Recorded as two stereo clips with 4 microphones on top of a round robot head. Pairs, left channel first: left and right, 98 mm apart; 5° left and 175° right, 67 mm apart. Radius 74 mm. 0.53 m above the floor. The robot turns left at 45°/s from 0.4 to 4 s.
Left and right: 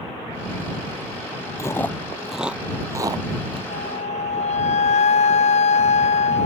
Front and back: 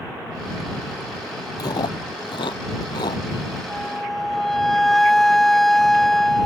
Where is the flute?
100° left; by 6.5 s 90° left.